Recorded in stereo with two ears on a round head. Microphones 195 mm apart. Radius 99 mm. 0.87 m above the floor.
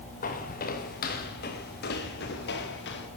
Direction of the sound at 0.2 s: 35° left (ahead or behind).